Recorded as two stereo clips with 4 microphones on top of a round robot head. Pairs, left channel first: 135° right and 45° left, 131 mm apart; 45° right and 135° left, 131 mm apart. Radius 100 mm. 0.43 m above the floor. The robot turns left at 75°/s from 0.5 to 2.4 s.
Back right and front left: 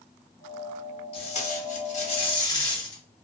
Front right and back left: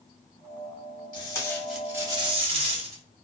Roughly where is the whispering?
No whispering in this recording.